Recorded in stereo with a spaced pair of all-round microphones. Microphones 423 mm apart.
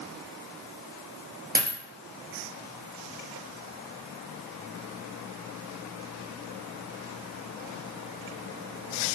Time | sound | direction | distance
1.6 | a dropped coin | 20° right (ahead or behind) | 0.6 m